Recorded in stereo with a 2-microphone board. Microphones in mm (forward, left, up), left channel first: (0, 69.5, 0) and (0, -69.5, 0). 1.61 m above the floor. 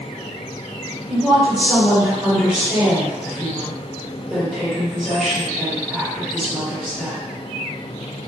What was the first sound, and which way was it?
A woman speaking, centre (ahead or behind).